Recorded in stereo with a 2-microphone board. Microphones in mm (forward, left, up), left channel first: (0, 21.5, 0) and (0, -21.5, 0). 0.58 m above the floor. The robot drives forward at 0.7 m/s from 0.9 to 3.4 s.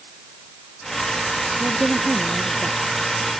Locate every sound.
1.6 s a woman speaking: 20° right (ahead or behind)